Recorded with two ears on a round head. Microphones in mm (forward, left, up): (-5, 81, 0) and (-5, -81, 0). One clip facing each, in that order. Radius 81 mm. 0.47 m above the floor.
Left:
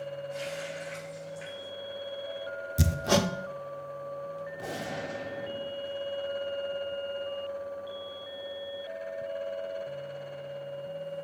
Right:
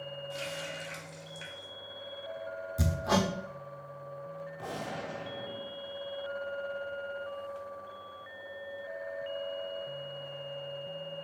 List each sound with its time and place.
0.3 s a running tap: 45° right (ahead or behind), 2.5 m
2.8 s hammering: 30° left (ahead or behind), 0.6 m
4.6 s a gunshot: 20° left (ahead or behind), 1.3 m